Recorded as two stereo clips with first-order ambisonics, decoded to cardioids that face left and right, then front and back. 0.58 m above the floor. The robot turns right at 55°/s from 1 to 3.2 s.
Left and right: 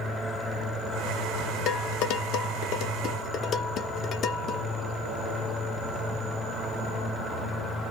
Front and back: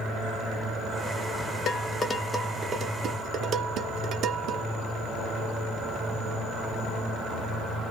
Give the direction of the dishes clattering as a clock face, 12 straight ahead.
10 o'clock.